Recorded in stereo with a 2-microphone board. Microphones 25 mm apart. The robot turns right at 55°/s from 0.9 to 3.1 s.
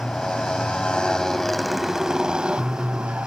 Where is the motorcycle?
135° left; by 3.3 s 105° right.